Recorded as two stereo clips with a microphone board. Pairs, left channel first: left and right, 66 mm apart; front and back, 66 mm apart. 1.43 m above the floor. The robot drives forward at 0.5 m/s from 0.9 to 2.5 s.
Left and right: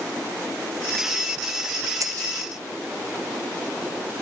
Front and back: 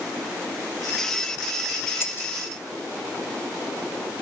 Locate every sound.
2.0 s breaking glass: 55° right